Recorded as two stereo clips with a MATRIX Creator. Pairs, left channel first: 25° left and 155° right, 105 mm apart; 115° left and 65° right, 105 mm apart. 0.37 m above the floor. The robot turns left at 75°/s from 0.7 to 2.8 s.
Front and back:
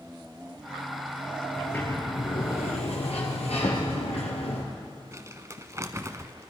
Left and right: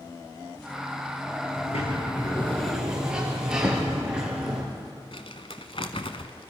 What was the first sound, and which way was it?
A sliding door, 110° left.